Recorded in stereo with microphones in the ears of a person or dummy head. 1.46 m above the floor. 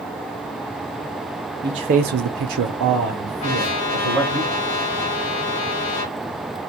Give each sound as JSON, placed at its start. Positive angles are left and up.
{"t": 1.6, "sound": "a man speaking", "side_deg": -15, "distance_m": 0.6}
{"t": 3.4, "sound": "a trumpet", "side_deg": 85, "distance_m": 1.1}